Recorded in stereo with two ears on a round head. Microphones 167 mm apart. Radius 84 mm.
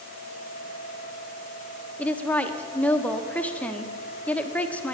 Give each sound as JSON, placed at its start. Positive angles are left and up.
{"t": 2.0, "sound": "a woman speaking", "side_deg": 5, "distance_m": 0.8}